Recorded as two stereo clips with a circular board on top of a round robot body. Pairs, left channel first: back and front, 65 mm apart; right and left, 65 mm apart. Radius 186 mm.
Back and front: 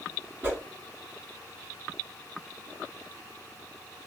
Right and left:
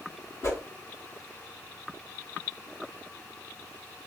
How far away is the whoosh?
About 1.7 m.